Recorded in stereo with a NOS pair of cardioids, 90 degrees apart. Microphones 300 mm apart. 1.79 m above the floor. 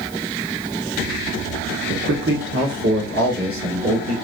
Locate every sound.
1.9 s a man speaking: 35° right, 1.1 m; by 4.1 s 50° right, 2.5 m